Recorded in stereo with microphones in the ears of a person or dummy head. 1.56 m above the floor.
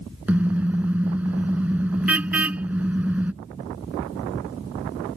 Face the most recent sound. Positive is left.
turn(degrees=-10)  # may be behind; listen again after turning